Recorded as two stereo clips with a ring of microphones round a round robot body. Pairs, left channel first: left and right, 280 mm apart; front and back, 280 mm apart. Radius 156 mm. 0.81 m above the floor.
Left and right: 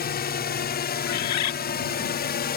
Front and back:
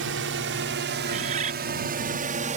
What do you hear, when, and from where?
0.0 s a drone: 140° left; by 2.6 s 125° left
1.1 s a bird: 110° left